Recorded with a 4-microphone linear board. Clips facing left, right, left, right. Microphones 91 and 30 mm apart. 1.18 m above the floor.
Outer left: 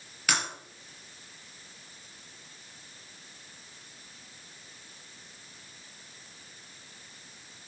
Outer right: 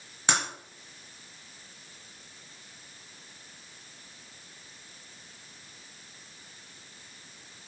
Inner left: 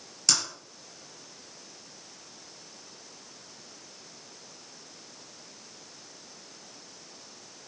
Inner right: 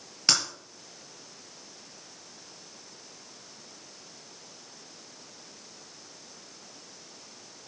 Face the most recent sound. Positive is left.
turn(degrees=-25)  # may be behind; listen again after turning